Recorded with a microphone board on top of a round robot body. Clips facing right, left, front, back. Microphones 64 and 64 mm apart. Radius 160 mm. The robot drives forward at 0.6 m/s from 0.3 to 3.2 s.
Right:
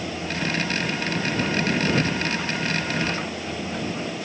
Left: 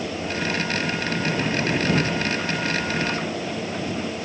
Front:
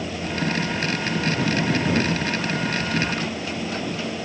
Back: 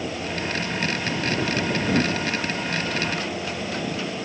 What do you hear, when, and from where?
Only background noise.